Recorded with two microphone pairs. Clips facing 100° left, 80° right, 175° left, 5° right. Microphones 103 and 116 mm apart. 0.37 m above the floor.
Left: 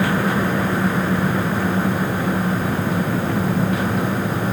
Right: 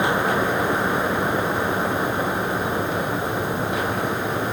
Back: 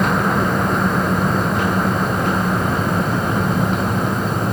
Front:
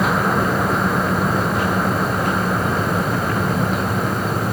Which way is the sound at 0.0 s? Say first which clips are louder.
Left 1 dB, back 1 dB; 105° left.